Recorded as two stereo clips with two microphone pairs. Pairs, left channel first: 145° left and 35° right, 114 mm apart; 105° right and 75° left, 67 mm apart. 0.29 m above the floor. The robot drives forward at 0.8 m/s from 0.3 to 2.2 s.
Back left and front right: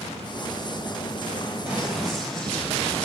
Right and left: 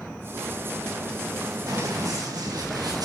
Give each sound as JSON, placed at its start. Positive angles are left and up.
{"t": 1.7, "sound": "running footsteps", "azimuth_deg": 50, "distance_m": 6.0}